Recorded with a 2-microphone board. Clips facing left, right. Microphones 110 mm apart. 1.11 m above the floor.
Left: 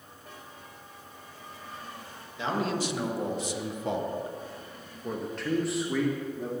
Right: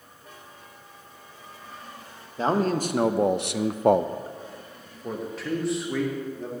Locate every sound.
2.4 s a man speaking: 40° right (ahead or behind), 1.1 m; by 6.5 s 5° left (ahead or behind), 2 m